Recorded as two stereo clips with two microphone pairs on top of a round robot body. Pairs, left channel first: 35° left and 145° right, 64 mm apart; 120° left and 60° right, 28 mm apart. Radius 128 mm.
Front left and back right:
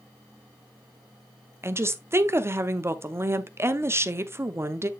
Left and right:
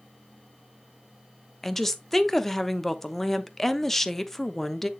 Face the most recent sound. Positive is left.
turn(degrees=-170)